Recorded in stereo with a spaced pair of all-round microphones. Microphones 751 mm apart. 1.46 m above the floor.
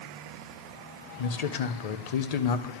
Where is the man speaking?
60° left (ahead or behind), 0.6 m.